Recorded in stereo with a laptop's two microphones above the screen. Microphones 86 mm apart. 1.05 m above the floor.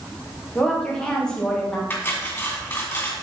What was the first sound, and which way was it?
A woman speaking, 10° left (ahead or behind).